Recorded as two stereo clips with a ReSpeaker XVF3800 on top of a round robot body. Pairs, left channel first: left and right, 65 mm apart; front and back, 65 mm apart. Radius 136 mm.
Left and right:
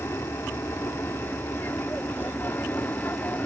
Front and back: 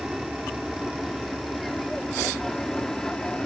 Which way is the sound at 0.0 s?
100° left.